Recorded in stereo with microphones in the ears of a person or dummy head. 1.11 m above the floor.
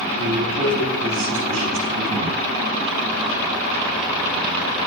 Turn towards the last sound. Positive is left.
turn(degrees=-55)  # may be behind; listen again after turning